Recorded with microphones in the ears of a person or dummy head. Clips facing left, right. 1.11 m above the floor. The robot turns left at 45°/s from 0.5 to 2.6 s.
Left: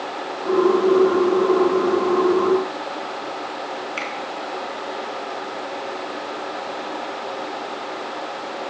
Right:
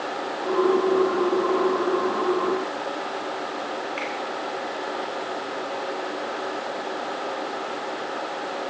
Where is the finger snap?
60° left (ahead or behind), 1.3 m.